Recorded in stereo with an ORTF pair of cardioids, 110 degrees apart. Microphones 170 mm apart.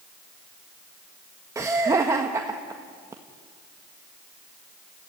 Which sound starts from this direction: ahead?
Laughter, at 1.6 s.